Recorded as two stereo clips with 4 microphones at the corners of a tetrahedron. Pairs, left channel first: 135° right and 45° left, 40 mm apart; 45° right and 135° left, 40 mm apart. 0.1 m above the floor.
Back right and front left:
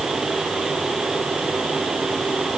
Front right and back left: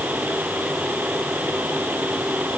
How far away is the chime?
No chime in this recording.